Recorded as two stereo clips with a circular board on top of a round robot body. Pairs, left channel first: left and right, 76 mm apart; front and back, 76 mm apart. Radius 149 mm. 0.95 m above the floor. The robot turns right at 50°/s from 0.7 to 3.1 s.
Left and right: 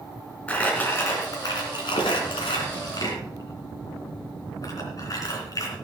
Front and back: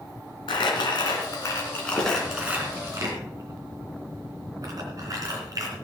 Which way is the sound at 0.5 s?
15° left.